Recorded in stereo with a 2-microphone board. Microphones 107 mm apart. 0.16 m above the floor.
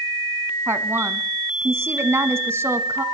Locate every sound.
0.7 s a woman speaking: 25° right (ahead or behind), 1.1 m